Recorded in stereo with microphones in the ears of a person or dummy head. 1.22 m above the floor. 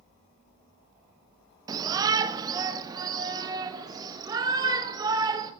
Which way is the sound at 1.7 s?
20° right (ahead or behind).